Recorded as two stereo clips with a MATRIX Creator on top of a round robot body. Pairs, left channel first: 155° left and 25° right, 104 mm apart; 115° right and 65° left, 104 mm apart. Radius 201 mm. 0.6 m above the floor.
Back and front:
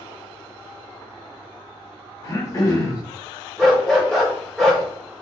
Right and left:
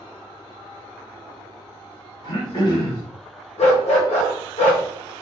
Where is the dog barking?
120° right, 1.0 m.